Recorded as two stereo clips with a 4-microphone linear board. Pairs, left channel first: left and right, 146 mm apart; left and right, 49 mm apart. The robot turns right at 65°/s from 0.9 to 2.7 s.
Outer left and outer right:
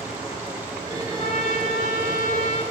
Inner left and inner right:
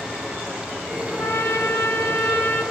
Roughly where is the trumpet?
Ahead left.